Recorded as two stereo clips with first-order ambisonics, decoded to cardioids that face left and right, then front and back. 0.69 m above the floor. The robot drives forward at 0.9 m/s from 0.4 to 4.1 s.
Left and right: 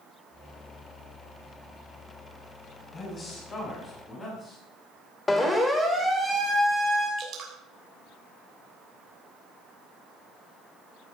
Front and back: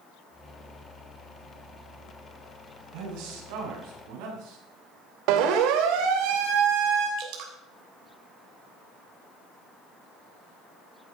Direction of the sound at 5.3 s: 170° left.